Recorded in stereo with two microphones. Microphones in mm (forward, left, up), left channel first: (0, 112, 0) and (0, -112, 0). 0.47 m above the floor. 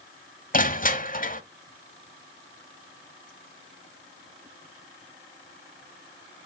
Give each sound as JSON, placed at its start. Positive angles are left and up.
{"t": 0.5, "sound": "crushing", "side_deg": 40, "distance_m": 0.7}